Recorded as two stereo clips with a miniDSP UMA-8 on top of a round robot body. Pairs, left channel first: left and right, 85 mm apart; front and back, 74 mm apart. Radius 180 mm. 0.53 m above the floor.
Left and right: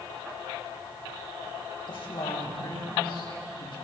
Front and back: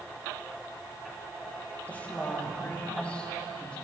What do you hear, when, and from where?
1.9 s a woman speaking: 70° left, 4 m; by 3.8 s 75° left, 6.5 m